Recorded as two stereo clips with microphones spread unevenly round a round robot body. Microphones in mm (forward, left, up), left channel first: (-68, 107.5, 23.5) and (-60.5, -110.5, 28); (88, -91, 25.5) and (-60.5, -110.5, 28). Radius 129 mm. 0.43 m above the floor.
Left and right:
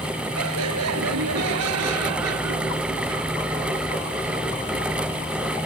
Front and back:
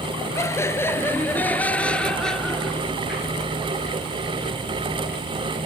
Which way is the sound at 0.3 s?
65° right.